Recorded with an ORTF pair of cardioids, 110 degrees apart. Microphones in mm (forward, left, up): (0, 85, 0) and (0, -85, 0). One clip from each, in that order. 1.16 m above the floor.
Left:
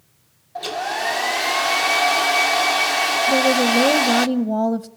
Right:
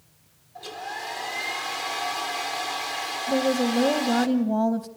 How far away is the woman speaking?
About 0.7 m.